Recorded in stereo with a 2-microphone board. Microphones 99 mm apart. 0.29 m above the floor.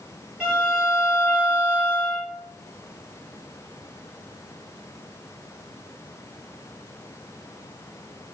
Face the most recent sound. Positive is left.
turn(degrees=-10)  # may be behind; listen again after turning